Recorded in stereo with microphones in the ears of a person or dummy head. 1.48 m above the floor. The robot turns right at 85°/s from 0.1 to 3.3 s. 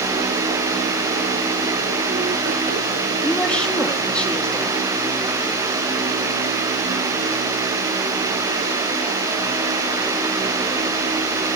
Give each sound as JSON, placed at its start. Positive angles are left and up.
{"t": 3.2, "sound": "a woman speaking", "side_deg": -5, "distance_m": 2.0}